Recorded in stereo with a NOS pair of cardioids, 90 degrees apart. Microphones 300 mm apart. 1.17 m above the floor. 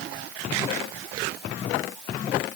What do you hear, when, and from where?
Only background noise.